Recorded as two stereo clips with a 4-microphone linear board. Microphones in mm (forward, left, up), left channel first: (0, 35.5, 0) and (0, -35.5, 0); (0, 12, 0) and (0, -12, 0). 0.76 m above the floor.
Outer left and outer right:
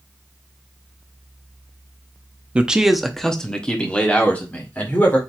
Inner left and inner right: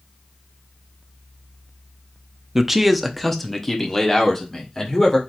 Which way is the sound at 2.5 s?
15° right (ahead or behind).